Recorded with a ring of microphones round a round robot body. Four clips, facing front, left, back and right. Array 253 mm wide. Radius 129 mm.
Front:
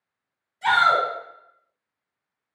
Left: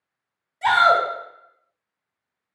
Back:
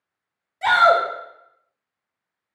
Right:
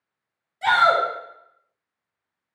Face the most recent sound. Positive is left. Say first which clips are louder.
# left 1 dB, back 4 dB
turn(degrees=175)